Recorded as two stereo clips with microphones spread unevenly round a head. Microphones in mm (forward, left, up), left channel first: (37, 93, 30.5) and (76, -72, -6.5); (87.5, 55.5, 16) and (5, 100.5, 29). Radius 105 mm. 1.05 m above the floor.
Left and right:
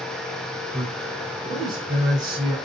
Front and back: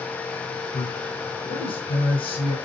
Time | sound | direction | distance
0.7 | a man speaking | 15° right | 6 m